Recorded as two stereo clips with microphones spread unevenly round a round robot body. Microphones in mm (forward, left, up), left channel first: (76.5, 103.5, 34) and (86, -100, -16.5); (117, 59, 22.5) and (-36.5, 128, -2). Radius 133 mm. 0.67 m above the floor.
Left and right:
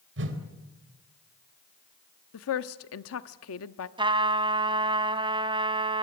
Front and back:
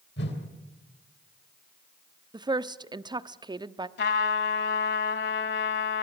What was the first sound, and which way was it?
A whoosh, 75° right.